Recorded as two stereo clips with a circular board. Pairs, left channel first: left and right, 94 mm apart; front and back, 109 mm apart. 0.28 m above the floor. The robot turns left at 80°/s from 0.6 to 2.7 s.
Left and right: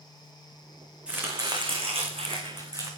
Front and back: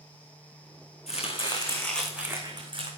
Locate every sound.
1.1 s chopping: 10° right, 3.5 m; by 2.9 s 140° right, 3.5 m